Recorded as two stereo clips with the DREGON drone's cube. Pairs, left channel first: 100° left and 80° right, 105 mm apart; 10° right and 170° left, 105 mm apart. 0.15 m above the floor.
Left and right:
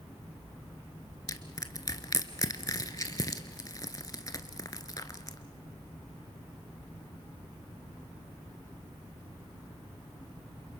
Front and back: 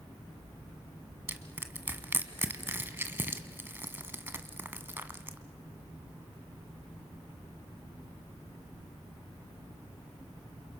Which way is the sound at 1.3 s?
115° left.